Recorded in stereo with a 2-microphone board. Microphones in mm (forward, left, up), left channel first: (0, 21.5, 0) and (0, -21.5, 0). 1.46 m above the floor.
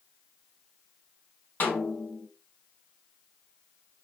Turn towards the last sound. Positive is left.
turn(degrees=45)  # may be behind; listen again after turning